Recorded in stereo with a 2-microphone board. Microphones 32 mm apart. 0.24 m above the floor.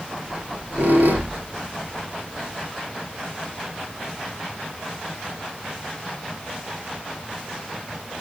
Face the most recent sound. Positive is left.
turn(degrees=-60)  # may be behind; listen again after turning